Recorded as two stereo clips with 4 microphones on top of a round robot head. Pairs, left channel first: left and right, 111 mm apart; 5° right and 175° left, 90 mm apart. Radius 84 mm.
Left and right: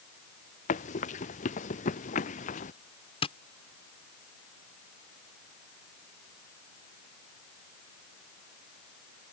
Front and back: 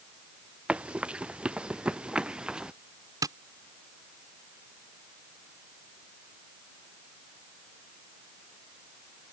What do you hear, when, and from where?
0.7 s running footsteps: 95° left; by 2.7 s 90° left
3.2 s tapping: 125° left